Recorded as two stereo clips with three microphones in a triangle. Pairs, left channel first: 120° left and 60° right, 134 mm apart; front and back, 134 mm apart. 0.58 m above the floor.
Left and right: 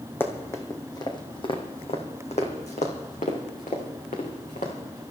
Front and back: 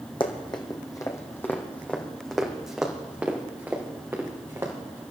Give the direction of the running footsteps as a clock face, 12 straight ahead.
10 o'clock.